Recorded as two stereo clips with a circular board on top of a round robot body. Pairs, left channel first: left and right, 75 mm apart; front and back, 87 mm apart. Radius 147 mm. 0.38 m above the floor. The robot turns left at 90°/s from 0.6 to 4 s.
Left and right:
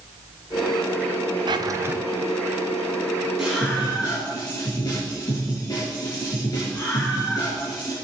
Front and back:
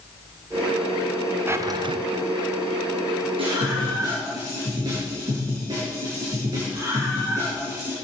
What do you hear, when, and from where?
1.5 s a drawer: 115° right, 1.0 m; by 2.0 s 160° right, 1.0 m
3.4 s a scream: 175° right, 6.5 m; by 7.9 s 130° left, 6.5 m